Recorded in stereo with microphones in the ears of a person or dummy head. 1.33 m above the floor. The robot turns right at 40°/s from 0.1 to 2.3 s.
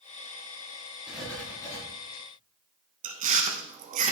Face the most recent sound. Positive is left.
turn(degrees=-30)  # may be behind; listen again after turning